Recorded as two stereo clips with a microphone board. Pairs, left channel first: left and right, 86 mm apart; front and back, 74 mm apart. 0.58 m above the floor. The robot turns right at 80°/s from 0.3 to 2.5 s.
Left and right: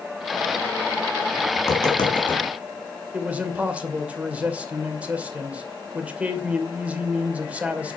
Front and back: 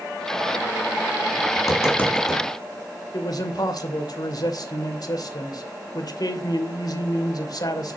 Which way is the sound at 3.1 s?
20° right.